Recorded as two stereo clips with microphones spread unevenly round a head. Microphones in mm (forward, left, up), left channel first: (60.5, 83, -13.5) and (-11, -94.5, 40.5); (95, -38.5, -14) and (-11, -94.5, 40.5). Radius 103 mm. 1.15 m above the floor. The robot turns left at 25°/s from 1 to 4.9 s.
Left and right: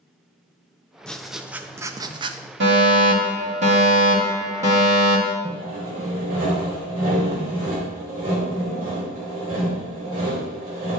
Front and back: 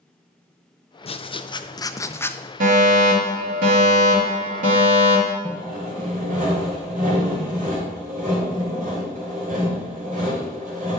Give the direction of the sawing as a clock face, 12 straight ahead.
5 o'clock.